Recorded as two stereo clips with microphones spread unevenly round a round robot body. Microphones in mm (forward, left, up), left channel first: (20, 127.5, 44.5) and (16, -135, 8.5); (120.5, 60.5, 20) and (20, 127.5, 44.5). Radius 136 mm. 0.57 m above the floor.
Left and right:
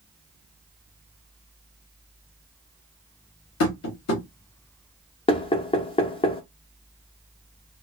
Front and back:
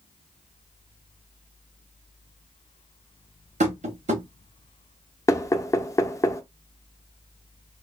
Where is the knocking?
15° left, 0.7 m.